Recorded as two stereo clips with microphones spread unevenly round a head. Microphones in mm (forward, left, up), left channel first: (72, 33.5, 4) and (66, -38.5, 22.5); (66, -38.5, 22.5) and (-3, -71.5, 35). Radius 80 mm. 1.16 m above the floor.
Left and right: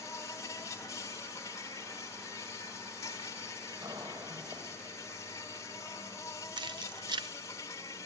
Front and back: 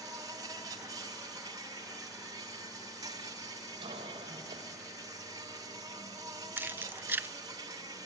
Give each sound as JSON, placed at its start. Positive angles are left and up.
{"t": 0.0, "sound": "an insect", "azimuth_deg": 155, "distance_m": 1.1}
{"t": 3.8, "sound": "a cough", "azimuth_deg": -160, "distance_m": 4.5}
{"t": 6.6, "sound": "keys jangling", "azimuth_deg": -90, "distance_m": 0.7}